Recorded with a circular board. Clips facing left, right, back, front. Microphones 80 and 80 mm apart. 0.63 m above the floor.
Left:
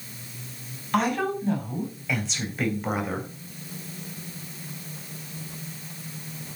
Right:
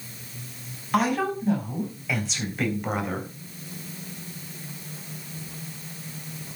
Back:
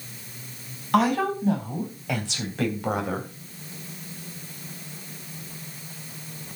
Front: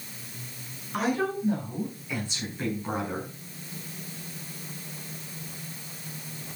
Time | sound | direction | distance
0.9 | a woman speaking | 175° right | 4.5 m